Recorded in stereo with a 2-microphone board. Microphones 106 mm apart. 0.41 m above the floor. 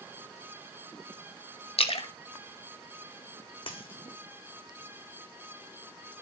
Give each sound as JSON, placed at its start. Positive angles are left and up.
{"t": 1.8, "sound": "a splash", "side_deg": 65, "distance_m": 0.9}
{"t": 3.7, "sound": "a dropped coin", "side_deg": 60, "distance_m": 1.4}